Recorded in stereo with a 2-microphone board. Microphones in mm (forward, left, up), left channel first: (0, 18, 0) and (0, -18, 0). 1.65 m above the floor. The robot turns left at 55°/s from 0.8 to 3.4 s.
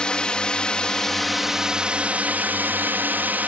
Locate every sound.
0.0 s a drone: 30° left; by 3.5 s 115° right